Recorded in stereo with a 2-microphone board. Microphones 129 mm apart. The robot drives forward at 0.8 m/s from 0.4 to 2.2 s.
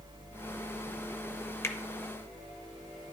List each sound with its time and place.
1.6 s a finger snap: 20° left (ahead or behind), 0.7 m